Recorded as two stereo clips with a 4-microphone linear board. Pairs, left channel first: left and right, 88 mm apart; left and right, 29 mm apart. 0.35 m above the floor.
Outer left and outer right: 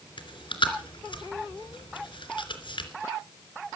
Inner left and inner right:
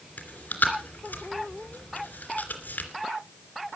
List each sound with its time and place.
0.2 s chewing: 75° left (ahead or behind), 3 m